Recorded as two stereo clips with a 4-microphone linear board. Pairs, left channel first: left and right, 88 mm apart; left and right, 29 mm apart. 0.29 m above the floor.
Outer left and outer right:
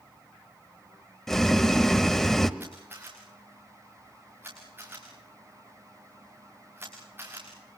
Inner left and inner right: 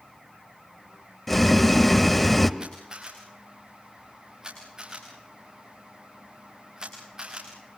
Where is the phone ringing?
No phone ringing in this recording.